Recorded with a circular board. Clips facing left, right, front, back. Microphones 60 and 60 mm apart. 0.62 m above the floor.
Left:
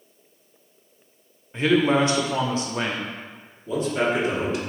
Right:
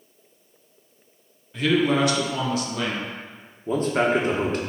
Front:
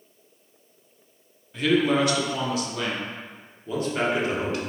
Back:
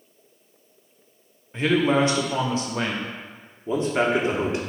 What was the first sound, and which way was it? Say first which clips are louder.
A man speaking: left 1 dB, back 1 dB; 135° left.